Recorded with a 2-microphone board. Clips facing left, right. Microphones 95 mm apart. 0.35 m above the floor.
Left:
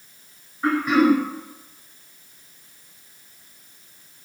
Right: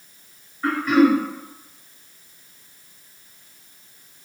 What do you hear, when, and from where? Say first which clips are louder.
0.6 s throat clearing: right 1 dB; 20° left (ahead or behind), 0.6 m